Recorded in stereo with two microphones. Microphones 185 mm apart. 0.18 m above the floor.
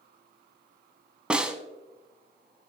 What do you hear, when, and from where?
1.3 s a snare drum: 5° right (ahead or behind), 0.7 m